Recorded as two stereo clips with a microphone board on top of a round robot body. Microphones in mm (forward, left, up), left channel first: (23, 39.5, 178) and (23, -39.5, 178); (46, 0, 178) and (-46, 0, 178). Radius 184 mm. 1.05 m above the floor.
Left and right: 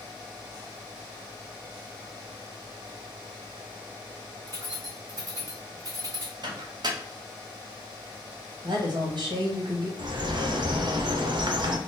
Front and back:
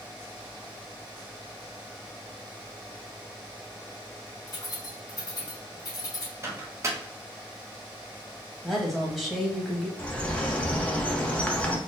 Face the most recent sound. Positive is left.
turn(degrees=-75)